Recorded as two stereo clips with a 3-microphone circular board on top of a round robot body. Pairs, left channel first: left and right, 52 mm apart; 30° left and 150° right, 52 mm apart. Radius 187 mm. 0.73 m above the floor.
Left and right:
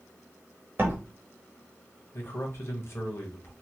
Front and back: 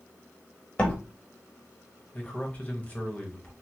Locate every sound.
0.8 s a door slam: 40° right, 1.1 m
2.1 s a man speaking: 85° left, 1.3 m